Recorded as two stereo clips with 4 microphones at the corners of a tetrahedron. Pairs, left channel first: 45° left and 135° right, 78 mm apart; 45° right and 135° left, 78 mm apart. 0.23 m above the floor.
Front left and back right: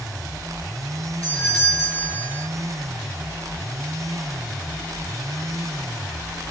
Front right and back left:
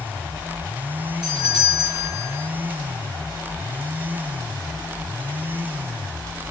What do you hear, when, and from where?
1.2 s a doorbell: 115° left, 5.5 m